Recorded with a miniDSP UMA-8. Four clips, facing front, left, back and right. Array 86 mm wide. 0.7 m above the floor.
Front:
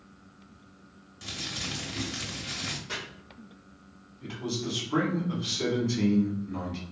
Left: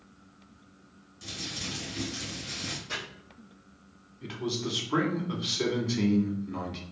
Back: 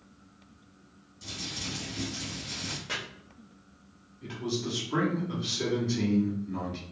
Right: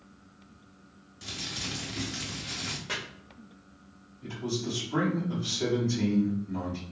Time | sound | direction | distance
1.2 | crumpling | 25° right | 0.9 m
2.9 | chopping | 120° right | 1.0 m
4.2 | a man speaking | 85° left | 1.1 m